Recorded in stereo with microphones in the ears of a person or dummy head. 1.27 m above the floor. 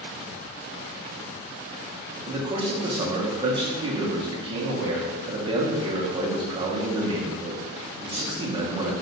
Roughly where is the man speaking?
Right.